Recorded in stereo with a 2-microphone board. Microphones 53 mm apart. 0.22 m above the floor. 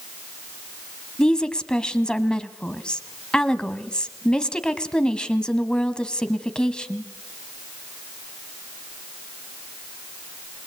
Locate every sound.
1.2 s a woman speaking: 15° left (ahead or behind), 1.4 m